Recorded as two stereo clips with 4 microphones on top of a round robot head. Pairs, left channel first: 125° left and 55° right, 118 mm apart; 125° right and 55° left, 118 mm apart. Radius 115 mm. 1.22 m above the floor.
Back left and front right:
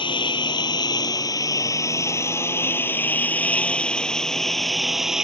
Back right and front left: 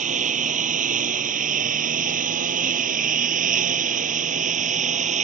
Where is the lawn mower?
75° left; by 5.3 s 30° left.